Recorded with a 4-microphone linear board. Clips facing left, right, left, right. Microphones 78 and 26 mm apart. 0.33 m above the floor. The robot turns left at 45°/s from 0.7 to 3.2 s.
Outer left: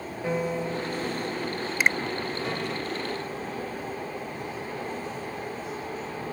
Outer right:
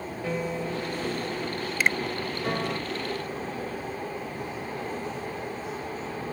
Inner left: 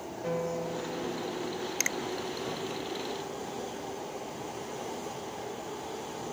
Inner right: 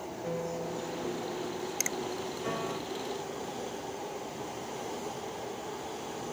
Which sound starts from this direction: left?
A finger snap, at 1.8 s.